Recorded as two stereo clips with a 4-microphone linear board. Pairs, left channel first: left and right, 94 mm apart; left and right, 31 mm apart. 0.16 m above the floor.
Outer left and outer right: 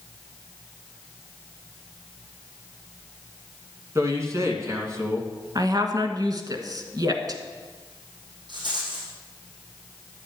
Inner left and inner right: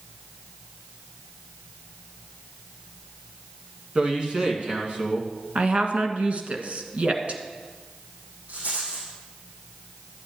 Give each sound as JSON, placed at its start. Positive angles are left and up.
{"t": 4.0, "sound": "a man speaking", "side_deg": -35, "distance_m": 2.0}
{"t": 5.5, "sound": "a woman speaking", "side_deg": -45, "distance_m": 1.5}
{"t": 8.5, "sound": "a rattle", "side_deg": -60, "distance_m": 4.5}